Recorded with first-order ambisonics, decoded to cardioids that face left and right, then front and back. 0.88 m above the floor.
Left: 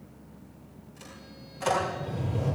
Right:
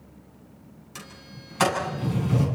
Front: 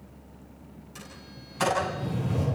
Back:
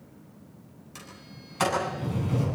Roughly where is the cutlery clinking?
No cutlery clinking in this recording.